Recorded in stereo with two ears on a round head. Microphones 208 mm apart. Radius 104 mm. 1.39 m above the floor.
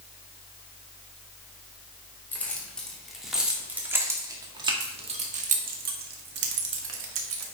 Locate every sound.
2.3 s keys jangling: 5° left (ahead or behind), 2.5 m; by 7.5 s 65° right (ahead or behind), 2 m